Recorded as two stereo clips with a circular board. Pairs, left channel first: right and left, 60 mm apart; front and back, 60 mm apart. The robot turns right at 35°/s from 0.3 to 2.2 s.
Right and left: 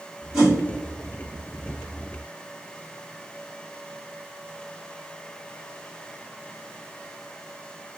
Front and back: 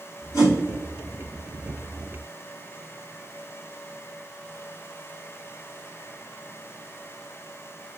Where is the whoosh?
20° left, 1.6 m; by 0.6 s 25° left, 1.6 m.